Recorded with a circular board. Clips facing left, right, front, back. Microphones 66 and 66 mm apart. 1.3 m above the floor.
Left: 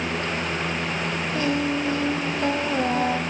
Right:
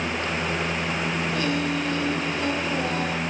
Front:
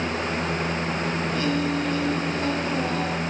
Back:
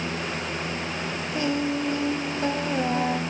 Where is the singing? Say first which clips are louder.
Left 4 dB, back 1 dB; 140° left, 1.3 m.